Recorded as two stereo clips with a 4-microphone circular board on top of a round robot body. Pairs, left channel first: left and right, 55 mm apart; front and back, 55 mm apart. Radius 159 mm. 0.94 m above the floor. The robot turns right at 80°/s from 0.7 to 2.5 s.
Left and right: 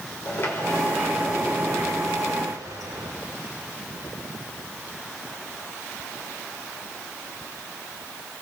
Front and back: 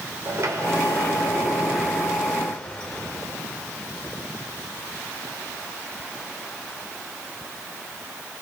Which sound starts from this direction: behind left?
A sliding door, at 0.2 s.